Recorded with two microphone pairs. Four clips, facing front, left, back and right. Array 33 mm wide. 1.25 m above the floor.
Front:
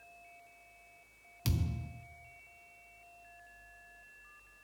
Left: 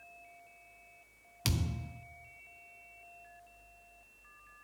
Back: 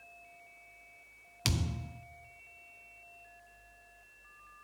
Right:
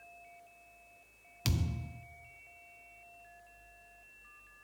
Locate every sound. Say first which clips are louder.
1.4 s a thud: left 1 dB, back 3 dB; 165° left, 0.7 m